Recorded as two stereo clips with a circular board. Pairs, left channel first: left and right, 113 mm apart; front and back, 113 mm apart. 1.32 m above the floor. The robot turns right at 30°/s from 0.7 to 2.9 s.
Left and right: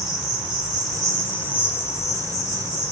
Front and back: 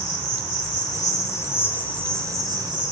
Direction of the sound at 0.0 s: 40° left.